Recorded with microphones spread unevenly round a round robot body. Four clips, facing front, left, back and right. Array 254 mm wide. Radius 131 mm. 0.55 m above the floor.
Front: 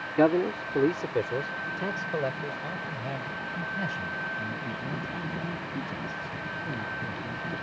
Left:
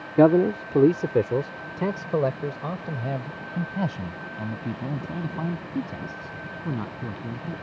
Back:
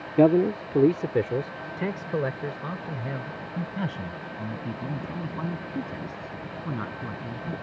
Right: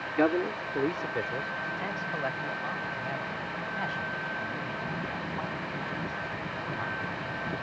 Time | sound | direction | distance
0.2 | a man speaking | 120° left | ?